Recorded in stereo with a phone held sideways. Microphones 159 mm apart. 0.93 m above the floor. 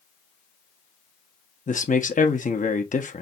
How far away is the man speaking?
About 1.1 m.